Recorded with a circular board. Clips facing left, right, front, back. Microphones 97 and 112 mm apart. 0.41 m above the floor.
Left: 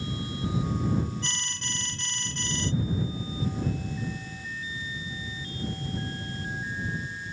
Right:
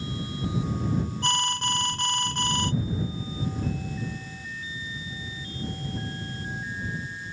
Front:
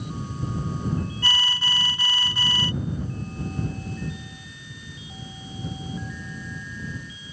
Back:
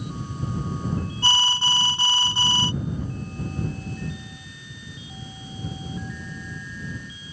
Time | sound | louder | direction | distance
1.2 | an alarm | right 11 dB, back 4 dB | 120° right | ?